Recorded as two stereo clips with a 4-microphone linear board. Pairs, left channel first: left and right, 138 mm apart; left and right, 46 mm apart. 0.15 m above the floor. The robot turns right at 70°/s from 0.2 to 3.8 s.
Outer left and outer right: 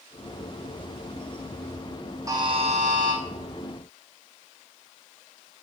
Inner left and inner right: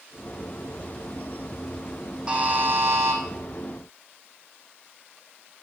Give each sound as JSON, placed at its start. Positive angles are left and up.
{"t": 2.3, "sound": "a buzzer", "azimuth_deg": -155, "distance_m": 2.0}